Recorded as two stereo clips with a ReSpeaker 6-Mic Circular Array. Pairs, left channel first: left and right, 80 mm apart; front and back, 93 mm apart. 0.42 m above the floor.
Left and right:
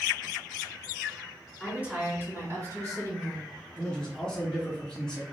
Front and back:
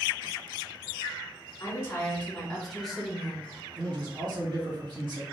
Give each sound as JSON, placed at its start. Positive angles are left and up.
{"t": 1.6, "sound": "a woman speaking", "azimuth_deg": -20, "distance_m": 1.4}
{"t": 3.8, "sound": "a man speaking", "azimuth_deg": 170, "distance_m": 1.9}